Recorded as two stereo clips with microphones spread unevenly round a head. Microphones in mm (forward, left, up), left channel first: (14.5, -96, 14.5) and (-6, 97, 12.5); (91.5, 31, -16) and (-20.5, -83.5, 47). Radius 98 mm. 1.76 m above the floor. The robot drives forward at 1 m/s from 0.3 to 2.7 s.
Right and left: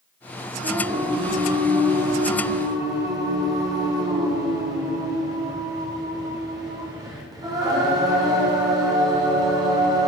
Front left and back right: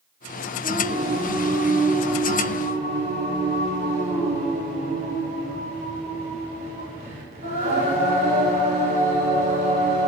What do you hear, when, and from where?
0.6 s singing: 165° left, 5.5 m; by 10.1 s 170° left, 7.5 m